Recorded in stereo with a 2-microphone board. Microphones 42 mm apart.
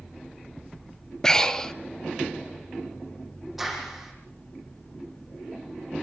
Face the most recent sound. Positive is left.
turn(degrees=-5)  # may be behind; listen again after turning